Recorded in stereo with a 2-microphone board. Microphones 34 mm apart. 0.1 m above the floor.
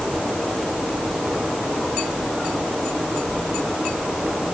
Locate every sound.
Only background noise.